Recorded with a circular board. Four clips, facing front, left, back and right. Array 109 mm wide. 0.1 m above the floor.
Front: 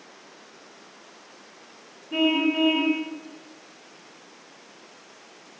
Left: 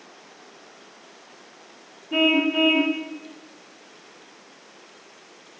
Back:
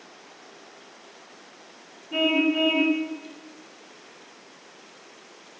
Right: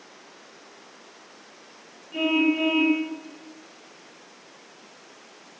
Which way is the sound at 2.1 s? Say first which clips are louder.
Left 2 dB, even; 85° left.